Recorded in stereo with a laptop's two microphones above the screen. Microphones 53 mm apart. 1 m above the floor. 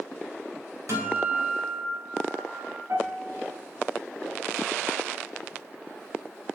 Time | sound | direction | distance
0.9 | a guitar | 85° right | 2.5 m
2.9 | a piano | 75° right (ahead or behind) | 3 m